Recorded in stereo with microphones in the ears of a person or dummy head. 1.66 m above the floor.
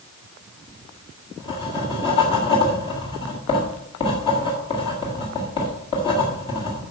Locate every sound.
0.7 s writing: 30° left (ahead or behind), 1.5 m